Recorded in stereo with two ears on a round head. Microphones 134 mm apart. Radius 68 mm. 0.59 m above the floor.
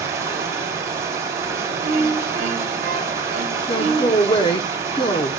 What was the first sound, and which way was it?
Running water, 20° right (ahead or behind).